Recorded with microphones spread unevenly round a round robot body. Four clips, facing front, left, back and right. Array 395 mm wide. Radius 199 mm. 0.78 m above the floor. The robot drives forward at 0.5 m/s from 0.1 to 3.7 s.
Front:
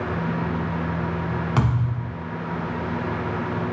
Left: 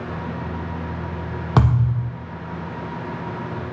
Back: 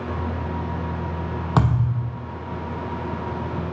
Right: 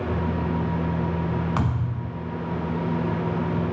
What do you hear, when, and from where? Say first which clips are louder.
1.6 s a thud: left 6 dB, back 7 dB; 105° left, 1.1 m; by 2.1 s 115° left, 1.2 m